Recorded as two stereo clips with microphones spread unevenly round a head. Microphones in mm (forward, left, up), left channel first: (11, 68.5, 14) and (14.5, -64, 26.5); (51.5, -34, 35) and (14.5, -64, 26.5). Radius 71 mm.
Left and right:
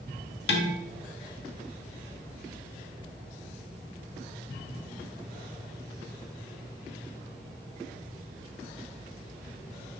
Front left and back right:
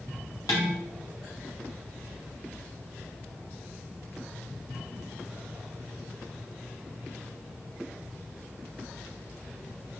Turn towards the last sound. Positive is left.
turn(degrees=95)